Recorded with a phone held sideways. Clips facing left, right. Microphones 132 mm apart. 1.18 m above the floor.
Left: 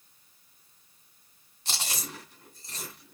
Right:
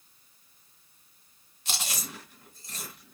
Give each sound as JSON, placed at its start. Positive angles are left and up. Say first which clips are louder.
{"t": 1.6, "sound": "chewing", "louder": "even", "side_deg": 35, "distance_m": 2.5}